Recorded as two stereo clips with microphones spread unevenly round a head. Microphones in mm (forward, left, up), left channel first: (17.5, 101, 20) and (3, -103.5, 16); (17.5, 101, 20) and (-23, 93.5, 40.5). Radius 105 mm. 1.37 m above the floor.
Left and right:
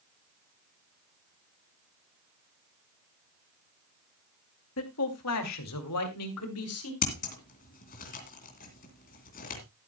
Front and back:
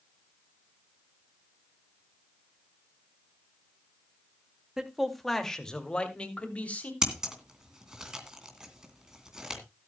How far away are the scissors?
About 2.5 m.